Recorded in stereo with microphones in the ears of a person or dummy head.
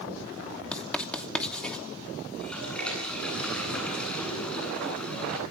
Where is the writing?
5° left (ahead or behind), 2.5 m.